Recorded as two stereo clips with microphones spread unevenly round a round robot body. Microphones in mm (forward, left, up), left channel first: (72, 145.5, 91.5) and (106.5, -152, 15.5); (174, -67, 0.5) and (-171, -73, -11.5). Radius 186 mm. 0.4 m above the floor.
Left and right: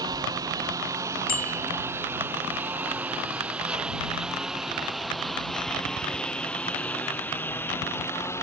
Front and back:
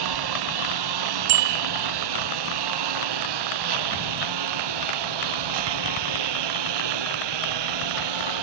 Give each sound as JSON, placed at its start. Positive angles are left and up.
{"t": 0.0, "sound": "a lawn mower", "azimuth_deg": -165}
{"t": 1.3, "sound": "a bicycle bell", "azimuth_deg": 165}